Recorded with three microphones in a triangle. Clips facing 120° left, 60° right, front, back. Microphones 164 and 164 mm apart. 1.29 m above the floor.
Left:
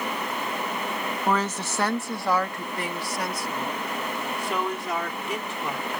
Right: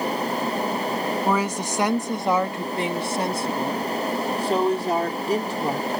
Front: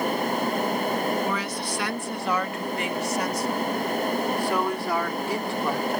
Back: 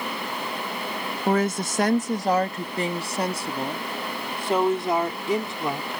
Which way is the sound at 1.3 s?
140° right.